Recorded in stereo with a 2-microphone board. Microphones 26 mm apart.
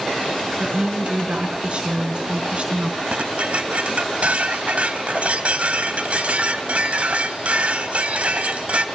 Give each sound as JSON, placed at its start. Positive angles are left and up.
{"t": 0.6, "sound": "a woman speaking", "side_deg": -45, "distance_m": 4.5}
{"t": 3.1, "sound": "dishes clattering", "side_deg": -55, "distance_m": 1.4}